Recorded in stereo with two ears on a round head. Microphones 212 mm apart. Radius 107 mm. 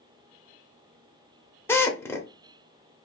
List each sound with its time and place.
1.7 s a drill: 10° left (ahead or behind), 0.6 m